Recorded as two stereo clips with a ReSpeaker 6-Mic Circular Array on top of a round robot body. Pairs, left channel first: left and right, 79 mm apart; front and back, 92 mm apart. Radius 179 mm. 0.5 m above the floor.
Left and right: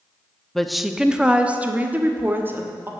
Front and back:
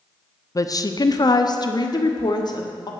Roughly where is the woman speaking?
Ahead.